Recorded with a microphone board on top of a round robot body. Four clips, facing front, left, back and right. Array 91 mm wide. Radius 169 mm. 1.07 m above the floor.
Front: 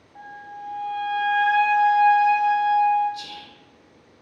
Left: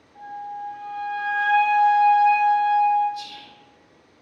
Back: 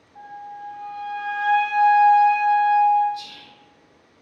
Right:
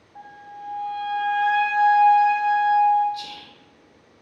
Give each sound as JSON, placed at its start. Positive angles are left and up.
{"t": 0.1, "sound": "a flute", "azimuth_deg": -25, "distance_m": 0.7}
{"t": 3.1, "sound": "whispering", "azimuth_deg": -55, "distance_m": 0.8}